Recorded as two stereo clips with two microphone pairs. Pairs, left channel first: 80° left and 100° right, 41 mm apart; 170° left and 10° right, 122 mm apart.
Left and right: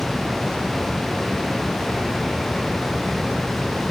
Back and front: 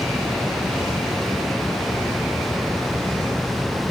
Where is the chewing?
I don't hear chewing.